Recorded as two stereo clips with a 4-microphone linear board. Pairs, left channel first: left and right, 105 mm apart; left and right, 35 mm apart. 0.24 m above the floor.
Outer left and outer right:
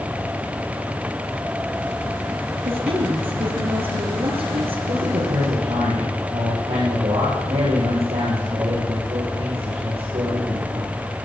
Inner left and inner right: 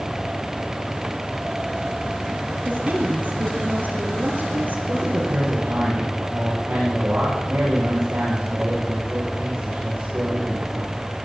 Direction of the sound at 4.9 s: 70° right (ahead or behind).